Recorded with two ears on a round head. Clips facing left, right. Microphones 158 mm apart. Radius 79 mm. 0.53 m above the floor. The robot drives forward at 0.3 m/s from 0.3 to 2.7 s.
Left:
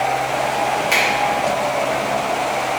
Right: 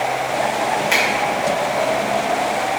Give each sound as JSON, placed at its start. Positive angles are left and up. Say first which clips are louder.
{"t": 0.9, "sound": "a finger snap", "louder": "even", "side_deg": -10, "distance_m": 1.1}